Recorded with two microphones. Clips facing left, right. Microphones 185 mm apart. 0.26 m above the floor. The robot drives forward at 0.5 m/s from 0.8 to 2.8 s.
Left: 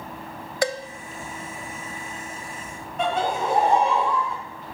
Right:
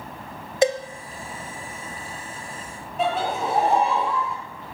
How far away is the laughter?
About 2 m.